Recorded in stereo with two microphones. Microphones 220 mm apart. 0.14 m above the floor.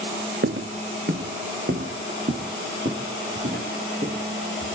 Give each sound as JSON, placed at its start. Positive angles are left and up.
{"t": 0.4, "sound": "footsteps", "side_deg": -65, "distance_m": 0.6}